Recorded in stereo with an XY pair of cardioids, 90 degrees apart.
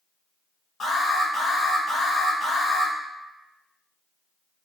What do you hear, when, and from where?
0.8 s an alarm: 50° left, 1.7 m